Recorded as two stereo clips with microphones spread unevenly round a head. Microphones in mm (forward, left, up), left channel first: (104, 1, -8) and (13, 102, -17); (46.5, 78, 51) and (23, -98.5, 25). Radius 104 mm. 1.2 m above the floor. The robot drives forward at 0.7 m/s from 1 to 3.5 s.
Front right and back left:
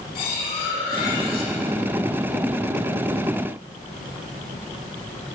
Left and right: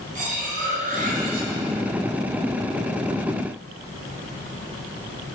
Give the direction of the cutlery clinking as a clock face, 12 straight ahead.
2 o'clock.